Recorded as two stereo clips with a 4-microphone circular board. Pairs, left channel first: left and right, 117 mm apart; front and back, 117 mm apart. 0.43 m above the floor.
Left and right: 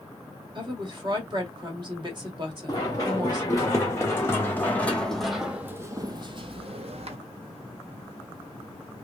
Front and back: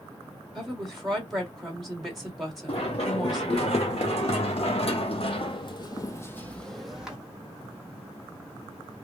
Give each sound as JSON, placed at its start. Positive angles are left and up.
{"t": 0.6, "sound": "a woman speaking", "azimuth_deg": -90, "distance_m": 1.6}
{"t": 2.7, "sound": "running footsteps", "azimuth_deg": 35, "distance_m": 1.8}